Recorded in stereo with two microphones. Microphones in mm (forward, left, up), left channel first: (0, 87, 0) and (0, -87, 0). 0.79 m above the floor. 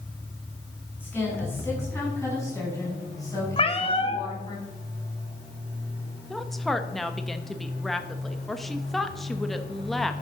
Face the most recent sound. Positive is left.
turn(degrees=0)  # may be behind; listen again after turning